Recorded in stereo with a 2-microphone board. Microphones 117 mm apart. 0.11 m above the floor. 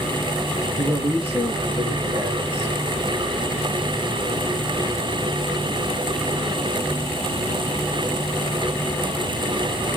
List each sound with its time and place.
0.8 s a woman speaking: centre (ahead or behind), 3.5 m